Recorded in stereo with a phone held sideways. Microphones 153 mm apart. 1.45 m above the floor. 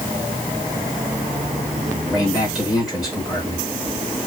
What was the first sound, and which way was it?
A man speaking, 5° right (ahead or behind).